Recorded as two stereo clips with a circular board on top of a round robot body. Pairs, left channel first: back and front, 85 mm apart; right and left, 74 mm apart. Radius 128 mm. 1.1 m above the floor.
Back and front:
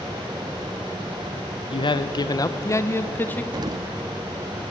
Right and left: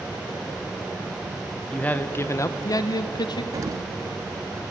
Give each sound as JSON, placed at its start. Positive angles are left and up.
{"t": 1.7, "sound": "a man speaking", "azimuth_deg": -165, "distance_m": 0.9}
{"t": 3.5, "sound": "an explosion", "azimuth_deg": 45, "distance_m": 1.1}